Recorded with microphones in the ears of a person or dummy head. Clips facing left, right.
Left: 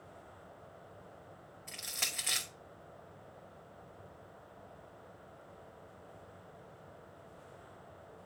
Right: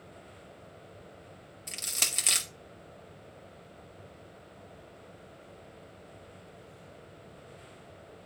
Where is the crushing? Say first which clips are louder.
Right 4 dB; 45° right (ahead or behind), 1.2 m.